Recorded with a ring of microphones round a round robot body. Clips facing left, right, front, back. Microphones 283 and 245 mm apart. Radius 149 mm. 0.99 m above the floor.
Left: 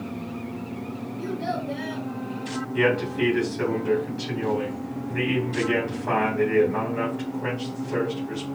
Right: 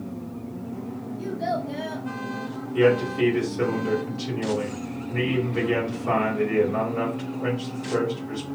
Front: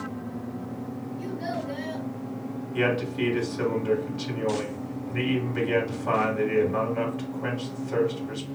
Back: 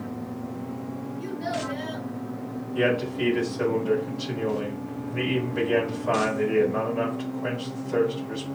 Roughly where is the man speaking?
Ahead.